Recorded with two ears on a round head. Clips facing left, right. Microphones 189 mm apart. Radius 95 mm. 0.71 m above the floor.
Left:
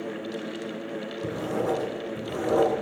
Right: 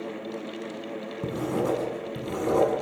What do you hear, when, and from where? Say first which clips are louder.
1.2 s writing: right 1 dB; 50° right (ahead or behind), 6.5 m